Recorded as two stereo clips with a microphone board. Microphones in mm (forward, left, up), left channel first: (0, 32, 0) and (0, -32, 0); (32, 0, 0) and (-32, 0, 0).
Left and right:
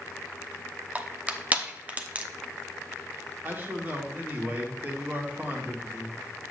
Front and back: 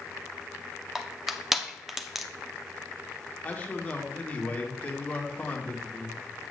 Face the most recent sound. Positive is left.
turn(degrees=-50)